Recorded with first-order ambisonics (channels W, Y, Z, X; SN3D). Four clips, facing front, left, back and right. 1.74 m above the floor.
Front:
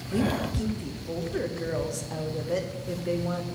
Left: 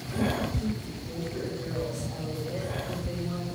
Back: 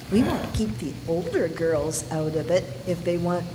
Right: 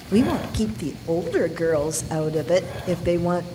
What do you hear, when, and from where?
0.1 s a woman speaking: 115° right, 0.8 m